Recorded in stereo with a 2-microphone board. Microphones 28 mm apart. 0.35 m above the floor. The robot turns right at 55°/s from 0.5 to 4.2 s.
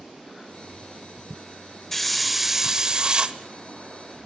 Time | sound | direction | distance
1.9 | a hiss | 165° left | 0.5 m